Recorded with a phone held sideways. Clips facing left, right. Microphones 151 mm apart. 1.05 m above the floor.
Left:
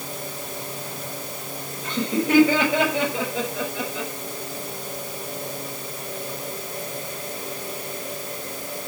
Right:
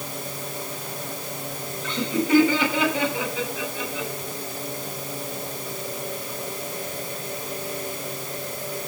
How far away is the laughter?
About 5 m.